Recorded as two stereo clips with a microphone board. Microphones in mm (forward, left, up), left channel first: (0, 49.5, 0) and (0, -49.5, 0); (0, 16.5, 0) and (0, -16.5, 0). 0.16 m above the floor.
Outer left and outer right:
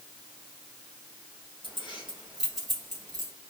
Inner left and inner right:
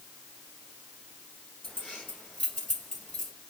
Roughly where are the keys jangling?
Left.